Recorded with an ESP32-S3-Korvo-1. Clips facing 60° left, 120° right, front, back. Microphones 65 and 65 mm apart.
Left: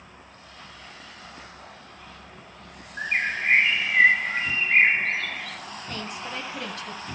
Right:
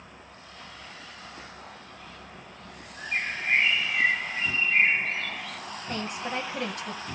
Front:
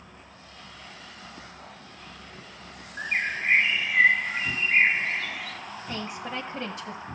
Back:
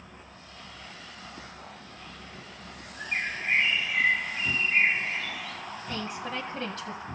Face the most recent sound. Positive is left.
turn(degrees=-65)